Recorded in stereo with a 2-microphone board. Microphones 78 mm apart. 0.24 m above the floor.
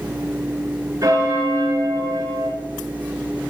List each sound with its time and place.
1.0 s a bell: 50° right (ahead or behind), 3 m